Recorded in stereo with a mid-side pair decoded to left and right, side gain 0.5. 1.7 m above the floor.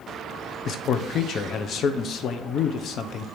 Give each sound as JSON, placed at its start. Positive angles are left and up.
{"t": 0.7, "sound": "a man speaking", "azimuth_deg": 55, "distance_m": 0.8}